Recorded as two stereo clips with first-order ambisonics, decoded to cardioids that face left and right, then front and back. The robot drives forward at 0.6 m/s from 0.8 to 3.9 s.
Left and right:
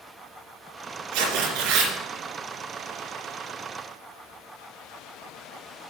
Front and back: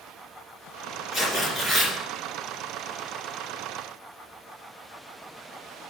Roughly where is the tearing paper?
Right.